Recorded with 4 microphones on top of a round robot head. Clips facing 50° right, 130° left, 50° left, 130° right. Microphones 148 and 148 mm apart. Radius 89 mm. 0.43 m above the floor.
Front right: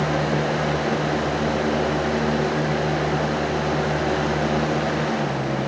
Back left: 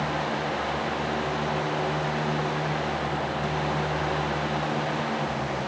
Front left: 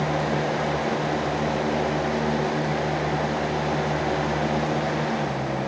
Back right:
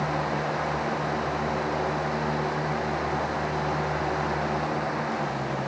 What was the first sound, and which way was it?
Only background noise.